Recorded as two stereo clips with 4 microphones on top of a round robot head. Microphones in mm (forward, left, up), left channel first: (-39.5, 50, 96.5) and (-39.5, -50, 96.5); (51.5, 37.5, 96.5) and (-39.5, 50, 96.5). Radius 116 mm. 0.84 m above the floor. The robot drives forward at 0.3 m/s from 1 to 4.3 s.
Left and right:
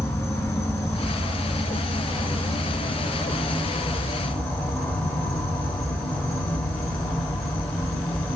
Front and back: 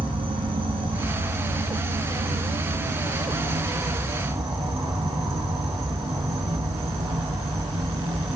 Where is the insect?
155° left, 1.6 m; by 8.4 s 165° left, 2.5 m.